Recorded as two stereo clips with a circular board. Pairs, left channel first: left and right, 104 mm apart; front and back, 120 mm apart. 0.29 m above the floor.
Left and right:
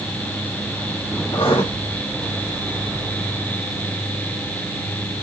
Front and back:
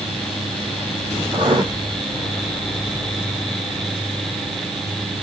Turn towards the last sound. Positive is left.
turn(degrees=130)